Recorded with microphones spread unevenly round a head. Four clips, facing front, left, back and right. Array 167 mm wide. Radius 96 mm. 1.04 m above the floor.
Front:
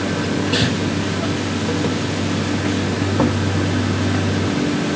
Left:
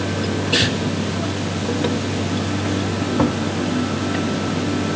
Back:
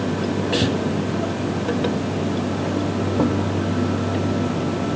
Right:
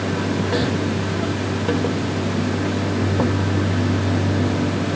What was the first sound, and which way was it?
Only background noise.